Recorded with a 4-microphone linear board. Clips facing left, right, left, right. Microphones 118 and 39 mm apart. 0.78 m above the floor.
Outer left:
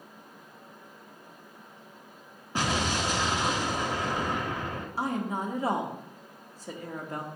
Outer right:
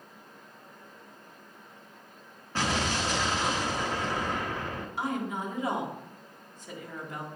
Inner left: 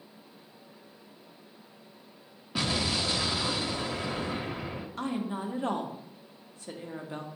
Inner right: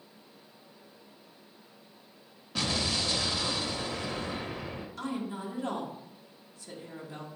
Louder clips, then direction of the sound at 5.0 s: Outer left 2 dB, inner left 3 dB; 40° left (ahead or behind).